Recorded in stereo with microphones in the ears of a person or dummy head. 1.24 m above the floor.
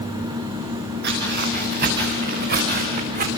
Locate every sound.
1.0 s footsteps: 50° right (ahead or behind), 7.5 m